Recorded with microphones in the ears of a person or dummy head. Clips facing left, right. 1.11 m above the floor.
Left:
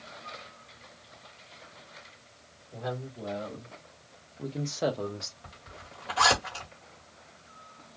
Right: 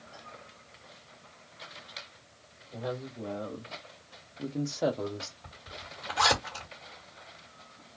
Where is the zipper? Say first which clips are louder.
Right 2 dB; centre (ahead or behind), 1.4 m.